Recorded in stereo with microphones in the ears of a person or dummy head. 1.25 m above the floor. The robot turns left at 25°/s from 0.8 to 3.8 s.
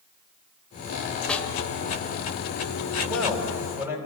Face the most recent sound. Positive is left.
turn(degrees=-15)  # may be behind; listen again after turning